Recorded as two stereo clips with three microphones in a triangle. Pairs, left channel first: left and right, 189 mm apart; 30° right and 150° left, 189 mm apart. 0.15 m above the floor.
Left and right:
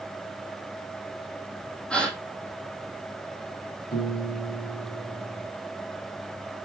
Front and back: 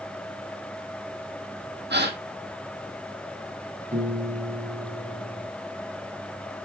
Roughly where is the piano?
Left.